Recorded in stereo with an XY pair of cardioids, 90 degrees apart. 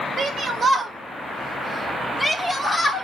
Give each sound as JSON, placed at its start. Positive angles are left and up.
{"t": 0.2, "sound": "a shout", "azimuth_deg": -55, "distance_m": 0.8}